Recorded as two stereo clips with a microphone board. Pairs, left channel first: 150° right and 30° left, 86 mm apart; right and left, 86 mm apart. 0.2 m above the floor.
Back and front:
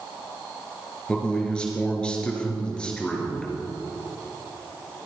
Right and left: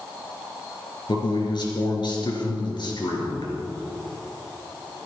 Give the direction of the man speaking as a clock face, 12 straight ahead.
2 o'clock.